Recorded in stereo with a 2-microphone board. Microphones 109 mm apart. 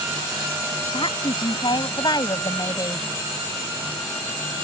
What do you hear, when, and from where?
0.9 s a woman speaking: 55° left (ahead or behind); by 3.1 s 30° left (ahead or behind)